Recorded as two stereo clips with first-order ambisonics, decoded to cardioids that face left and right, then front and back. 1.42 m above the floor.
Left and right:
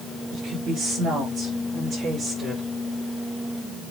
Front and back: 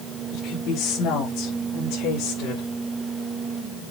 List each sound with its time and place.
0.3 s a woman speaking: 40° right, 3.5 m; by 2.7 s 25° right, 5 m